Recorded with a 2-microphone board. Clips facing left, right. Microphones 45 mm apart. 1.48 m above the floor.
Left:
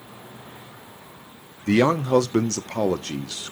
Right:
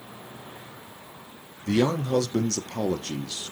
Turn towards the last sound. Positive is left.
turn(degrees=65)  # may be behind; listen again after turning